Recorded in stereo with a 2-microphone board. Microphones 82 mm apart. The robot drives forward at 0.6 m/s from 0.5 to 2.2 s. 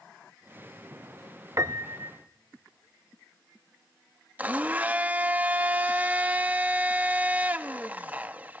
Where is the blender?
20° right (ahead or behind), 0.8 m.